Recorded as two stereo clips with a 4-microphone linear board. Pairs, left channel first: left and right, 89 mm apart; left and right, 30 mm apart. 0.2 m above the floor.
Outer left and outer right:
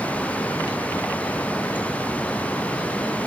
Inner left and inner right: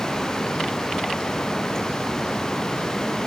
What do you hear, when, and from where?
Only background noise.